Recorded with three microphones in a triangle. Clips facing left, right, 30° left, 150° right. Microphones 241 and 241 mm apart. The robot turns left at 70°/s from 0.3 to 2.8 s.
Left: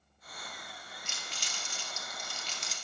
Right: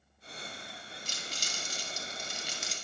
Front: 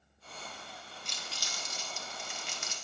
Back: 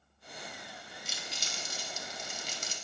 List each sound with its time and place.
1.1 s crumpling: 65° right, 0.8 m; by 2.8 s 175° left, 0.8 m